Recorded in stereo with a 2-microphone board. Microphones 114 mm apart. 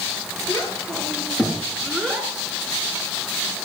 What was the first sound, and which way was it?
A child speaking, 25° left (ahead or behind).